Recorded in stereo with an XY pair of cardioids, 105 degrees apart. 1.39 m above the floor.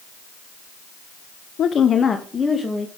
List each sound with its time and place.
1.6 s a woman speaking: 65° left, 0.6 m; by 2.9 s 20° left, 1.9 m